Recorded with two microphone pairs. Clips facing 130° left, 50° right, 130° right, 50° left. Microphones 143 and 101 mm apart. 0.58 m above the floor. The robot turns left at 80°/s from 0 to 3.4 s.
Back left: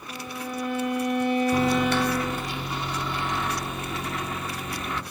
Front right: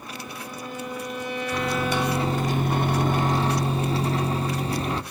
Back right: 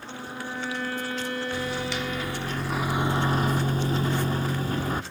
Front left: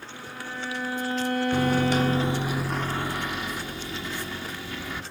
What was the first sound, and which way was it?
A violin, 165° right.